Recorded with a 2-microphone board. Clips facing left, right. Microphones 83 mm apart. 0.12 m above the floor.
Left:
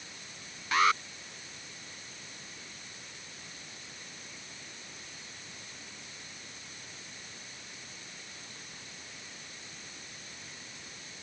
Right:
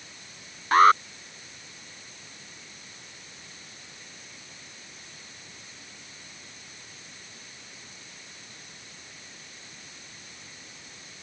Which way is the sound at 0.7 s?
45° right (ahead or behind).